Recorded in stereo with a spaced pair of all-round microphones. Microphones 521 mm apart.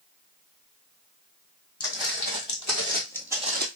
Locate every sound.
1.8 s footsteps: 50° left (ahead or behind), 2 m; by 3.6 s 20° right (ahead or behind), 1.4 m